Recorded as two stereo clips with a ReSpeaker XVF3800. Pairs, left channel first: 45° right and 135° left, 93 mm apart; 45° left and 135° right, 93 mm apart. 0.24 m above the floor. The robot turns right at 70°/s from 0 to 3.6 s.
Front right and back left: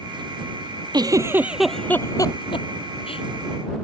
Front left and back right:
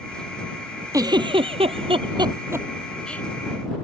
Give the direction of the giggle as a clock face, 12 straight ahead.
6 o'clock.